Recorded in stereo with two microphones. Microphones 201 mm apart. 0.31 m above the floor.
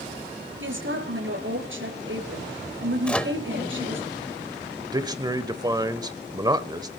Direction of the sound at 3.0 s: 5° left (ahead or behind).